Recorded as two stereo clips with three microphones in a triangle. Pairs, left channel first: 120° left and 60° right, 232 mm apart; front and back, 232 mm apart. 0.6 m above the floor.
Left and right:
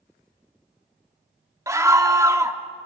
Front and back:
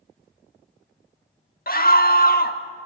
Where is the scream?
10° left, 1.4 m.